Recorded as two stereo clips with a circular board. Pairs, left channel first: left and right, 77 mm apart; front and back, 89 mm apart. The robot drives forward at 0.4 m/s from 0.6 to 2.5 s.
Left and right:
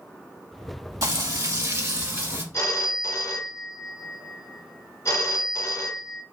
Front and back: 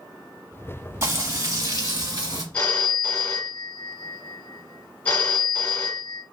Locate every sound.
1.0 s frying: 125° right, 1.2 m; by 2.4 s 140° right, 1.6 m
2.5 s a phone ringing: 65° left, 0.8 m